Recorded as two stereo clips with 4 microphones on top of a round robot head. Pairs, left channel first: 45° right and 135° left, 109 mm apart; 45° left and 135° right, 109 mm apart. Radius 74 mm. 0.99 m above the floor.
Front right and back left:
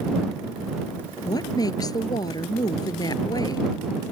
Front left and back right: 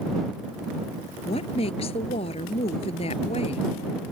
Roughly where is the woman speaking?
Ahead.